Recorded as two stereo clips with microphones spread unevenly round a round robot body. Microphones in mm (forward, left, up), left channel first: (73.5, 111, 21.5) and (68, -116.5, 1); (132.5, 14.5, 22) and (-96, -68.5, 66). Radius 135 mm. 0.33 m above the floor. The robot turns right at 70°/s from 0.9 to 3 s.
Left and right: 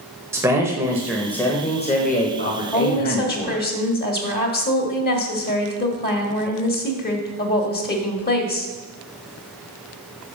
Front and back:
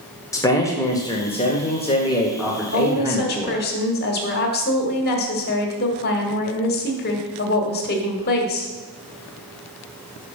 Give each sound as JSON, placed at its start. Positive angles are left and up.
{"t": 0.3, "sound": "a man speaking", "azimuth_deg": -30, "distance_m": 1.0}
{"t": 2.7, "sound": "a woman speaking", "azimuth_deg": 25, "distance_m": 1.4}